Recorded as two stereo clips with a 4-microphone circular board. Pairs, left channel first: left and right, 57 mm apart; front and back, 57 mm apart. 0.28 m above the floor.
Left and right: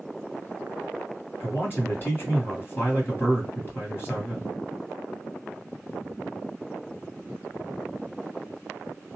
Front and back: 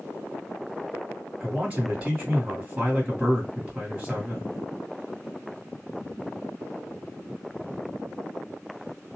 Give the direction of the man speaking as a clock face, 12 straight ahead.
8 o'clock.